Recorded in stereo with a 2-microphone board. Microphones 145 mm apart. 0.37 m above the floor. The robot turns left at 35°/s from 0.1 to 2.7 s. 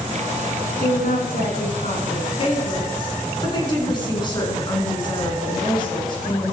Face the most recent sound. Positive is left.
turn(degrees=30)